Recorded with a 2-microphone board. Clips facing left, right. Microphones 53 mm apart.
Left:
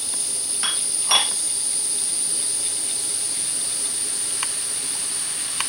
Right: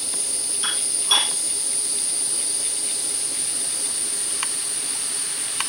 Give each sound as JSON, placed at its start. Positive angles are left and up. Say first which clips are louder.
{"t": 0.6, "sound": "dishes clattering", "louder": "even", "side_deg": 45, "distance_m": 3.0}